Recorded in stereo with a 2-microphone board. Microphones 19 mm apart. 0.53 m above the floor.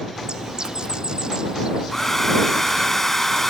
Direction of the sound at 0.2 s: 35° right (ahead or behind).